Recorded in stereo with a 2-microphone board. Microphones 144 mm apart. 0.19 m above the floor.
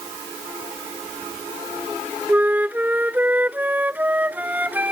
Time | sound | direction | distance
2.3 | a flute | 10° right (ahead or behind) | ?